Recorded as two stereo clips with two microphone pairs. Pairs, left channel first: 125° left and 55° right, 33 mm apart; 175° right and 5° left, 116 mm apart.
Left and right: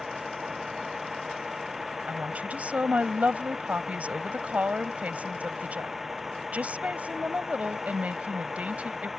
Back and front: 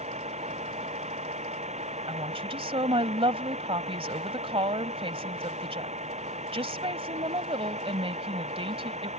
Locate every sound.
0.0 s a vehicle: 25° left
2.1 s a woman speaking: 20° right